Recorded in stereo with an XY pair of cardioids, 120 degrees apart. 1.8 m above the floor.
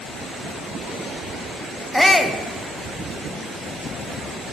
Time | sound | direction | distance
1.9 | a shout | 5° left | 1.2 m